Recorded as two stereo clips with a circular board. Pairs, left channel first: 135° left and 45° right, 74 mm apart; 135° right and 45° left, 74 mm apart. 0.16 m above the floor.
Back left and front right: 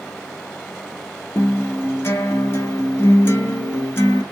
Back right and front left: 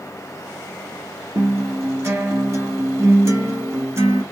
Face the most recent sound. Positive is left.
turn(degrees=85)